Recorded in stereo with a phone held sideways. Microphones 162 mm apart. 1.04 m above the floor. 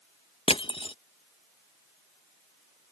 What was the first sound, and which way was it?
Crushing, 35° left (ahead or behind).